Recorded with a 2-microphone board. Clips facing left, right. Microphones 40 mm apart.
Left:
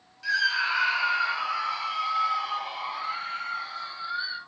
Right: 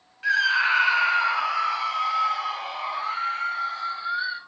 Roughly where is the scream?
Right.